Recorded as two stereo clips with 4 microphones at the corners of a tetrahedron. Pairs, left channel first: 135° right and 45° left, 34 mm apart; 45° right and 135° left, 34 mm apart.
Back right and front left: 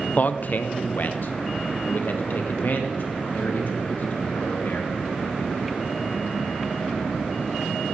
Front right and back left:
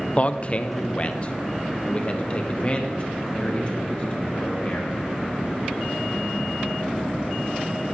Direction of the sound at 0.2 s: 100° right.